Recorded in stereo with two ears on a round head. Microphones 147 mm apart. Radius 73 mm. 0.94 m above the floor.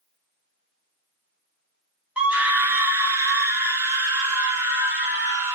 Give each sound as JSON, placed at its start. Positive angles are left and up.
{"t": 2.2, "sound": "a scream", "side_deg": -5, "distance_m": 0.7}